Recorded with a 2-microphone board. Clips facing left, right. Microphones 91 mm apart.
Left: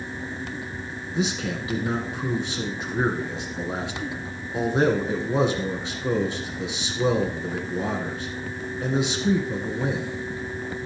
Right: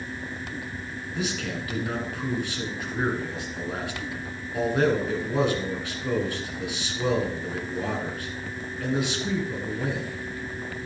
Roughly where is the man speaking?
Left.